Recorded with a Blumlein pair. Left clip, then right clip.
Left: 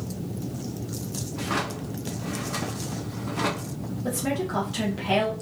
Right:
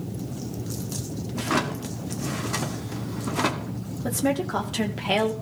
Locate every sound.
1.4 s a drawer: 15° right, 1.4 m
4.0 s a woman speaking: 15° right, 2.5 m